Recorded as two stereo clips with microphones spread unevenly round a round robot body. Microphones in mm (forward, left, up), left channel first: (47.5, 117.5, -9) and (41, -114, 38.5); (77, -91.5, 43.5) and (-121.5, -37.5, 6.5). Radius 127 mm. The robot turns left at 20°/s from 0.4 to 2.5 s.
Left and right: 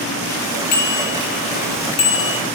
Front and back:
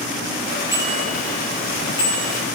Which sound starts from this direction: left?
A bicycle bell, at 0.7 s.